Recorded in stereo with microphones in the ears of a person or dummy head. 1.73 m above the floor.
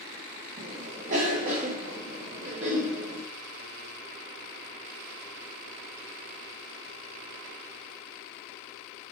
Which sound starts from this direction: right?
A cough, at 0.6 s.